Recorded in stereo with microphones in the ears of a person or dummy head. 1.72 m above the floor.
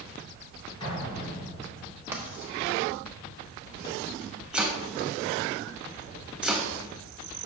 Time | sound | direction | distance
0.8 | an explosion | 30° left (ahead or behind) | 3 m
2.1 | writing | 10° right (ahead or behind) | 1.2 m
4.5 | chopping | 5° right (ahead or behind) | 1.0 m